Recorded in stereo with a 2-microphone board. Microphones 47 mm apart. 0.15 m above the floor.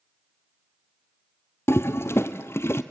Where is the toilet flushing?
65° left (ahead or behind), 1.1 m.